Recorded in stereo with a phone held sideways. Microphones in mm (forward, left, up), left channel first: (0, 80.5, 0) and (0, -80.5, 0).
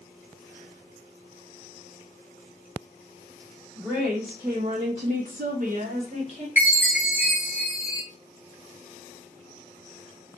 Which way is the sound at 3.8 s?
5° right (ahead or behind).